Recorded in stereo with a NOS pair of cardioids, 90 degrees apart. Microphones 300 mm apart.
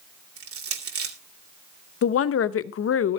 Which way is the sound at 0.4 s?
50° right.